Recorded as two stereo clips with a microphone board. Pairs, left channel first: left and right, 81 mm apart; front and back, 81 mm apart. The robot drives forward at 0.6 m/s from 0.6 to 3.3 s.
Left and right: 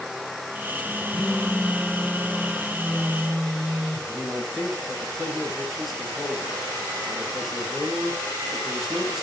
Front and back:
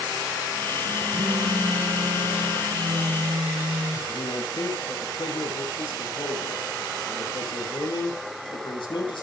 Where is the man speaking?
5° right, 8.5 m.